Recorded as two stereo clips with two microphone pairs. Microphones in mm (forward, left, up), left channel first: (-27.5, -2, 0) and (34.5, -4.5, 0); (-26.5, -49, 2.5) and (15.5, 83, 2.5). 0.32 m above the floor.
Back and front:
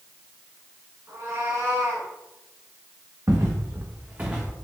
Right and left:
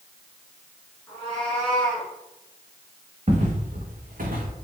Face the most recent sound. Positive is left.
turn(degrees=85)